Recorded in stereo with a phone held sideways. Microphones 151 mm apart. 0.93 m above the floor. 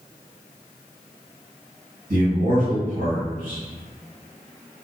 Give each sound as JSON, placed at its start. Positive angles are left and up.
{"t": 2.1, "sound": "a man speaking", "side_deg": -60, "distance_m": 1.4}